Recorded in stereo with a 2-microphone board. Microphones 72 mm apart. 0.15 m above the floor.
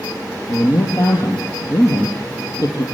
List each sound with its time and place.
0.5 s a man speaking: 55° left (ahead or behind), 3.5 m